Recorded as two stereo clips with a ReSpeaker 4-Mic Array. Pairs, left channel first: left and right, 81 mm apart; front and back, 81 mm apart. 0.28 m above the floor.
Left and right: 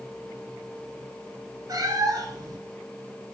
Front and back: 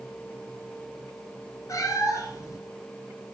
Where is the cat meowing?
45° right, 0.6 m.